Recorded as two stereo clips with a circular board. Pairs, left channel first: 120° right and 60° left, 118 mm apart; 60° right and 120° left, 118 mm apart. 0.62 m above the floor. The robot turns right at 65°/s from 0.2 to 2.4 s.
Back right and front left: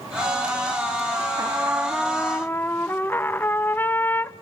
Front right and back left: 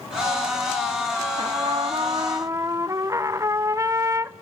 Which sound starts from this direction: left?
A trumpet, at 1.4 s.